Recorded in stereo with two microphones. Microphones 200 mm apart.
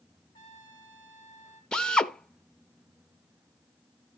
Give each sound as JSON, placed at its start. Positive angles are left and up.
{"t": 0.3, "sound": "a trumpet", "side_deg": 25, "distance_m": 5.0}
{"t": 1.7, "sound": "a drill", "side_deg": 5, "distance_m": 0.9}